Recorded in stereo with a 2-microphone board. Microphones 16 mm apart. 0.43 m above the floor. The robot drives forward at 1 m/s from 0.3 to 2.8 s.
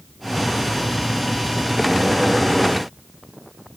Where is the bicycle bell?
I don't hear a bicycle bell.